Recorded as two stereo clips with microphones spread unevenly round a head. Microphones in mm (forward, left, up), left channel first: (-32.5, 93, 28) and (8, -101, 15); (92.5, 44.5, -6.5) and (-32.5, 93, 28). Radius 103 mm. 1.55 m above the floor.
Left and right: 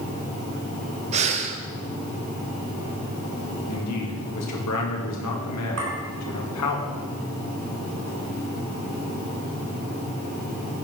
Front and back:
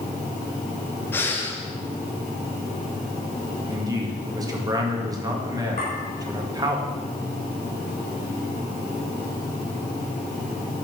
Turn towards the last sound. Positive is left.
turn(degrees=-80)